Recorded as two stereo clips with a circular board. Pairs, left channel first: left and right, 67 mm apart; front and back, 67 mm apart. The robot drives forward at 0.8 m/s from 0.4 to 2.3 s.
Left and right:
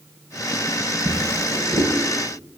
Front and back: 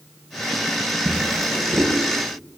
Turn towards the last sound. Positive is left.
turn(degrees=-115)